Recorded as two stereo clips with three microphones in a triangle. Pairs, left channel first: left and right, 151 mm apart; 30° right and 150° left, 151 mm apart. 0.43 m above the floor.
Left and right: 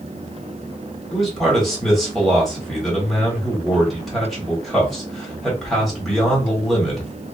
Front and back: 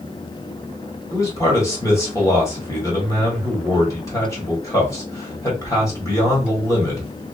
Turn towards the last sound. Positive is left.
turn(degrees=5)